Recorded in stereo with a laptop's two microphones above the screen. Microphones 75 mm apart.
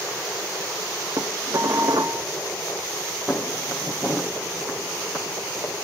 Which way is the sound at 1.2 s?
55° right (ahead or behind).